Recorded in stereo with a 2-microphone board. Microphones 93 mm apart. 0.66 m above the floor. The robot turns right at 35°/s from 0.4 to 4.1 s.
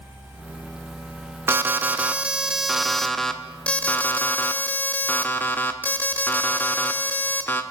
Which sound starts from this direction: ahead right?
An alarm, at 1.5 s.